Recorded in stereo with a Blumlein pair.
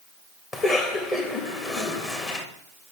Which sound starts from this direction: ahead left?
A cough, at 0.5 s.